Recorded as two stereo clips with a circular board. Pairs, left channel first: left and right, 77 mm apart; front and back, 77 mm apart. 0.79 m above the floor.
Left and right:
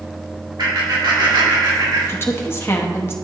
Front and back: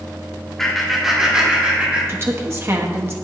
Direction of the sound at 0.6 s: 85° right.